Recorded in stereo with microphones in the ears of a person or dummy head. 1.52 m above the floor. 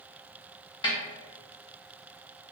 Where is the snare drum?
25° left (ahead or behind), 0.7 m.